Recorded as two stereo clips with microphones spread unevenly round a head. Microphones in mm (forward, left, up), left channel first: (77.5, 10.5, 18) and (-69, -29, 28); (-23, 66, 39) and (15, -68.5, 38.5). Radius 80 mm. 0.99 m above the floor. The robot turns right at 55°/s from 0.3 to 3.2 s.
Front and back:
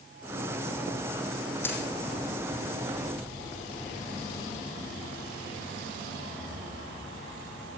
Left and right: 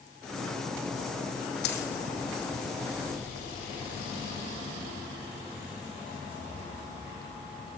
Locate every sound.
1.6 s a dropped coin: 90° left, 4.5 m; by 1.9 s 105° left, 4.5 m